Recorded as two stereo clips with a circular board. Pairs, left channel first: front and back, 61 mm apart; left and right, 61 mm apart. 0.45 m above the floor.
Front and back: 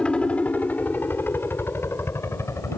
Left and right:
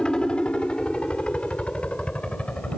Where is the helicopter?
40° left; by 2.8 s 20° left.